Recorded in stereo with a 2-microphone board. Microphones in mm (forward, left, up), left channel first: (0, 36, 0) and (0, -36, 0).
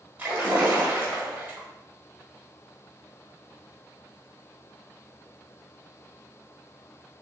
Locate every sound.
0.2 s a splash: 20° right (ahead or behind), 1.5 m